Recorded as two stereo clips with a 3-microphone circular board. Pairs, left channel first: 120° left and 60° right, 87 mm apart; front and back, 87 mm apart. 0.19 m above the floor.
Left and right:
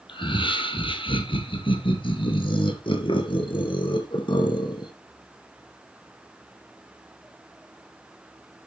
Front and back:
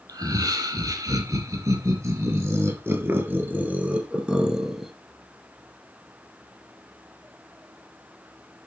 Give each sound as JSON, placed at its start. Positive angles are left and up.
{"t": 0.1, "sound": "laughter", "azimuth_deg": 135, "distance_m": 5.0}